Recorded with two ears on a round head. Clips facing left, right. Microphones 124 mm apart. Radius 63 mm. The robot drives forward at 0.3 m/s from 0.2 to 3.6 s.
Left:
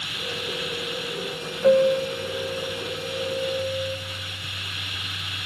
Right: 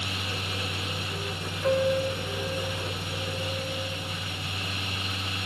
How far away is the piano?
About 1.7 m.